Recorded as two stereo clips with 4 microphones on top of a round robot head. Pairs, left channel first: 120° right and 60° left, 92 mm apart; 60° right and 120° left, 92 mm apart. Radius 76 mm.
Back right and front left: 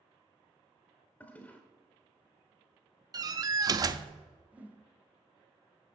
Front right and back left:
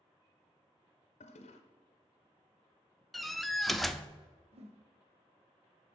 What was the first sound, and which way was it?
A toilet flushing, 45° right.